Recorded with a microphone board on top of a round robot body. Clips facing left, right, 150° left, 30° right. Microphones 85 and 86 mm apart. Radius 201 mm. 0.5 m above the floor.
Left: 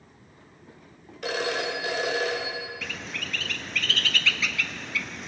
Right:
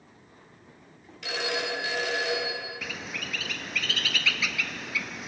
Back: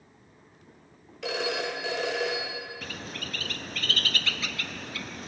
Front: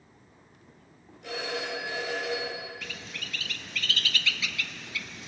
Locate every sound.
1.2 s a phone ringing: 140° left, 2 m
2.8 s a bird: 175° right, 0.6 m